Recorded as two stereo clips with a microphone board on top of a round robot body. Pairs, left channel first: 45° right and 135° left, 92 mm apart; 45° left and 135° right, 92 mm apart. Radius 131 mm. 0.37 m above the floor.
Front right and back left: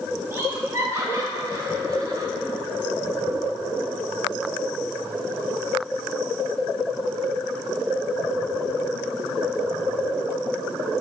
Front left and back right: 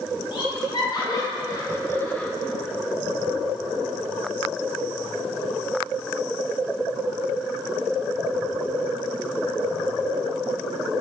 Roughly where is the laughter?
Left.